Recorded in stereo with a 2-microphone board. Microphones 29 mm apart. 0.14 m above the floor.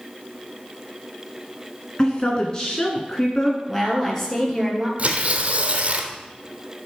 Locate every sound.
2.0 s a woman speaking: 30° left (ahead or behind), 1.6 m
3.7 s a woman speaking: 10° left (ahead or behind), 2.5 m
5.0 s tearing paper: 45° right (ahead or behind), 1.3 m